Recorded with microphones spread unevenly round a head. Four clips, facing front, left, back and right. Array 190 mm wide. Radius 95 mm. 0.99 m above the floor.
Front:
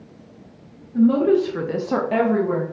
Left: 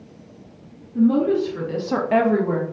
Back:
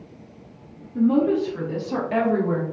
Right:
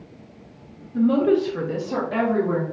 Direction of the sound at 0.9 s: 35° right.